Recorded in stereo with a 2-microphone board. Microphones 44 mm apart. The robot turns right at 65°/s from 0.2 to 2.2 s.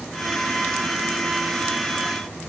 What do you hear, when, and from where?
Only background noise.